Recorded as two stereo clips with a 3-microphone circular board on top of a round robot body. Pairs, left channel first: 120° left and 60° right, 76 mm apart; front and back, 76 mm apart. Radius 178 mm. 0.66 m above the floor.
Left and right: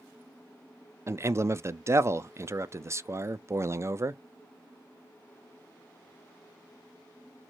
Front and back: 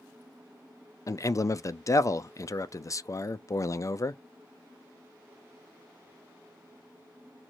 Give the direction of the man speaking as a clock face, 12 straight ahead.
1 o'clock.